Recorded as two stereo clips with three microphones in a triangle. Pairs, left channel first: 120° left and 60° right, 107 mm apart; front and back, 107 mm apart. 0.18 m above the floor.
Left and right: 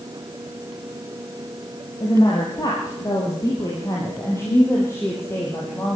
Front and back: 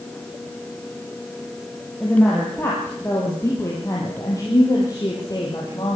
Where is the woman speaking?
75° left, 6.5 m; by 6.0 s 50° left, 7 m.